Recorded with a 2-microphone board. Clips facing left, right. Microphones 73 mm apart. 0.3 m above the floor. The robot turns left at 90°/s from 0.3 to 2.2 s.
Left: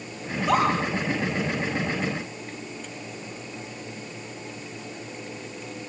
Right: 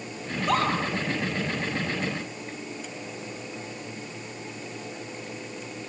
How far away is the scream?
About 8.5 m.